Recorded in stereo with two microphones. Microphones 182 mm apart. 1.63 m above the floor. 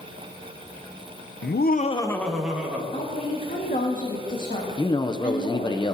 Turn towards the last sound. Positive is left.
turn(degrees=25)  # may be behind; listen again after turning